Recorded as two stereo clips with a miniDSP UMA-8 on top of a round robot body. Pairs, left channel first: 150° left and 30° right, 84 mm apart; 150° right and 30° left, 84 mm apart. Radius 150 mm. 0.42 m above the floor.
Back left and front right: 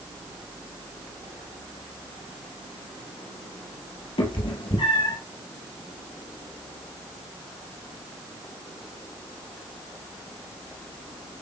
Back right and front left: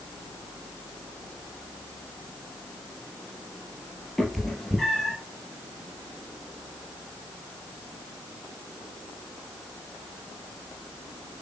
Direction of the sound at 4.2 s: 125° left.